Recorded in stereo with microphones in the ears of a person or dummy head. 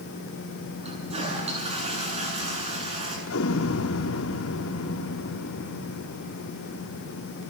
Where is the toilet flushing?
35° right (ahead or behind), 7.5 m.